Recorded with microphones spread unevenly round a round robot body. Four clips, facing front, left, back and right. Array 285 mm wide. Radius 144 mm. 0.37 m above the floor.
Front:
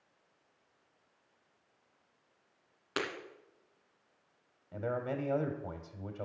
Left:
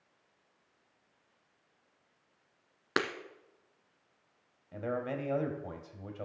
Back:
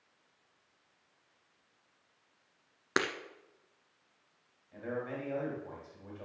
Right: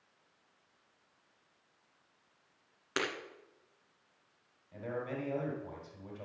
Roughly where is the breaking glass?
Behind left.